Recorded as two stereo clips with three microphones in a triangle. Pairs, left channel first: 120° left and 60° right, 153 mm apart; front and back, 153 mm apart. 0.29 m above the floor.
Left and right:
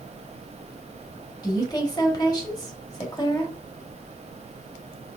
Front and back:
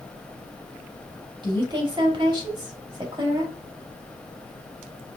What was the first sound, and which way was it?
A woman speaking, 155° left.